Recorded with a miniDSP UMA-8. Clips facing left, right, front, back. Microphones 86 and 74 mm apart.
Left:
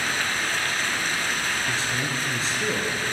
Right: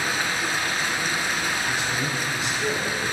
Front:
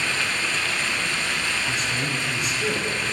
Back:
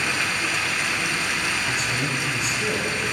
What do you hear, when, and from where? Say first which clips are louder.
0.0 s running water: right 1 dB, back 1 dB; 135° right, 1.0 m
1.7 s a man speaking: right 1 dB, back 1 dB; 90° left, 1.7 m